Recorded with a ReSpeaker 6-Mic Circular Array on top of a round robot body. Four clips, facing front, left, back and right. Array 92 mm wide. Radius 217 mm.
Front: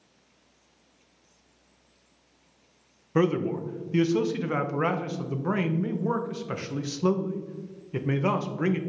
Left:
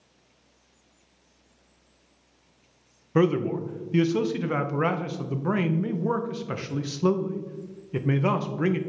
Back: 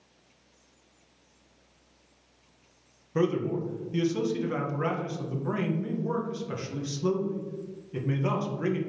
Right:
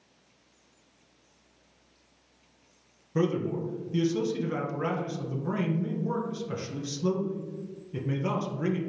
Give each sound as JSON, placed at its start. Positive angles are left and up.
{"t": 3.1, "sound": "a man speaking", "azimuth_deg": 55, "distance_m": 0.5}